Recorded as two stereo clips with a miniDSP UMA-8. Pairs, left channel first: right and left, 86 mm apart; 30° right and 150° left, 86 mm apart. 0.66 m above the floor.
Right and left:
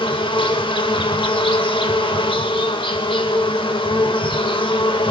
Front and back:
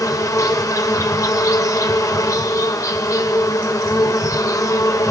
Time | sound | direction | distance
0.0 | an insect | 80° right | 1.0 m